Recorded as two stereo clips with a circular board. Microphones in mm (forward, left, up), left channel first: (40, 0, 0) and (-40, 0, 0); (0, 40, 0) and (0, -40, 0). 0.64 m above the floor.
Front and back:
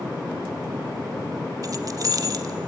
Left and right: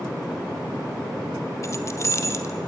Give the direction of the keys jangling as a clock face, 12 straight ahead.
7 o'clock.